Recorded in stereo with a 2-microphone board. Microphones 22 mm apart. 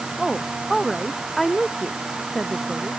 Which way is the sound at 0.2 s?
5° left (ahead or behind).